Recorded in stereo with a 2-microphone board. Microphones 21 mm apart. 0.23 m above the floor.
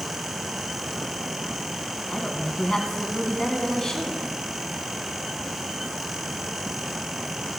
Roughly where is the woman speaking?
Left.